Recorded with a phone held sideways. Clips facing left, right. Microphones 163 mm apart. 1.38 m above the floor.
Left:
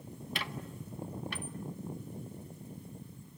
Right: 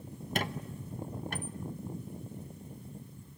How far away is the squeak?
About 0.8 m.